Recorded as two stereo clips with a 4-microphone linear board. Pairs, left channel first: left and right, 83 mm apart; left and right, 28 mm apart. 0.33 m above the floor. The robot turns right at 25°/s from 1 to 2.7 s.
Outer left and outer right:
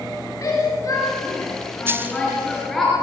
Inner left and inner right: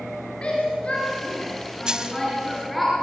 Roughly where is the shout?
Left.